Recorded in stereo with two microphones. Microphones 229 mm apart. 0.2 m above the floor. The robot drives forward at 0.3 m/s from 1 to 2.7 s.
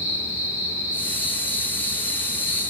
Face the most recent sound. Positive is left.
turn(degrees=-30)  # may be behind; listen again after turning